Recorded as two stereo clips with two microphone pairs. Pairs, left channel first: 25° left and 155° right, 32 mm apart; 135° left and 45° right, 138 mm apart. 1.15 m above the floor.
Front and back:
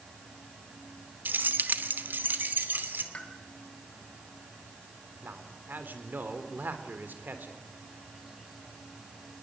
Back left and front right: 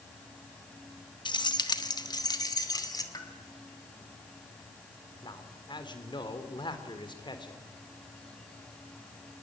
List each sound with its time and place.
1.2 s keys jangling: 165° right, 1.1 m; by 3.0 s 160° right, 2.5 m
3.1 s a pop: 70° left, 2.5 m
5.2 s a man speaking: 165° right, 3.5 m